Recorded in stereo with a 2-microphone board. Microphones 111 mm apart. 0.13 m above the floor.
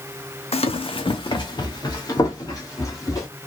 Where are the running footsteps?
65° left (ahead or behind), 0.5 m; by 3.3 s 30° left (ahead or behind), 2 m.